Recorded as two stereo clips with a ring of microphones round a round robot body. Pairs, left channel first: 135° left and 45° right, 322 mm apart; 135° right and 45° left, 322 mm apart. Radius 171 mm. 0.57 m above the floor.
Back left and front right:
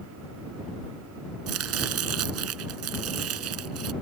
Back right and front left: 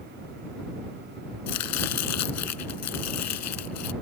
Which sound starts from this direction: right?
Chopping, at 1.5 s.